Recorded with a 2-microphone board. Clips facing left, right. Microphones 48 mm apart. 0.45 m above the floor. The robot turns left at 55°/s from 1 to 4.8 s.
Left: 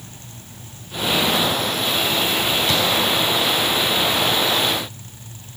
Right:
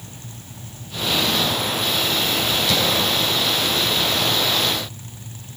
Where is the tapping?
40° left (ahead or behind), 4 m; by 2.8 s 35° left (ahead or behind), 4 m.